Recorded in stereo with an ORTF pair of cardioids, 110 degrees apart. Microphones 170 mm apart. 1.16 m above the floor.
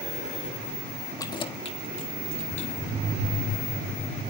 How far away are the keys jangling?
About 1.4 m.